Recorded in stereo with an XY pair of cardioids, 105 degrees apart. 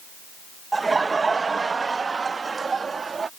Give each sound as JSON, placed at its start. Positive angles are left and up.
{"t": 0.7, "sound": "laughter", "azimuth_deg": -25}